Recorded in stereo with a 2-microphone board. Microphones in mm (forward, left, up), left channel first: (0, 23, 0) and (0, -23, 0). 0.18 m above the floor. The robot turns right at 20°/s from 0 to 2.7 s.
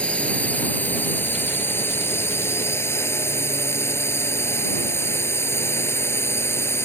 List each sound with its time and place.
0.0 s a drone: 30° left; by 6.9 s 80° left